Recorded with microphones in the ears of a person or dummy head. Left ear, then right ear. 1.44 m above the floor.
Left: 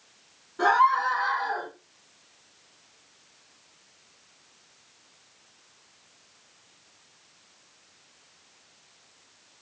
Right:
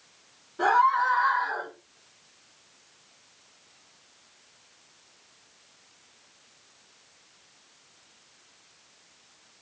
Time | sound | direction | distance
0.6 | a scream | 15° left (ahead or behind) | 5 m